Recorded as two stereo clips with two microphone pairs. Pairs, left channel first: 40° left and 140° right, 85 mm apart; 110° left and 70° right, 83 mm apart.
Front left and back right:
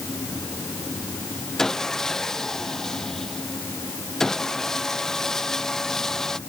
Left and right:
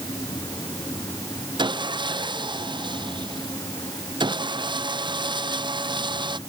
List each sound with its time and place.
1.6 s sawing: 45° right